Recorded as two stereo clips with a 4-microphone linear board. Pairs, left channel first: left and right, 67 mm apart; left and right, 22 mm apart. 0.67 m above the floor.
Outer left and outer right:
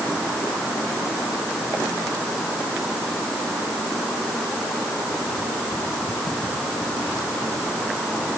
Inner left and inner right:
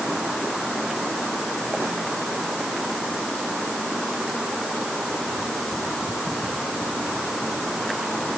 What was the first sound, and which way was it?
Only background noise.